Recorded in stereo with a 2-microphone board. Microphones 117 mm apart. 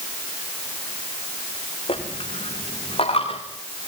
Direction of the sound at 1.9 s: 55° left (ahead or behind).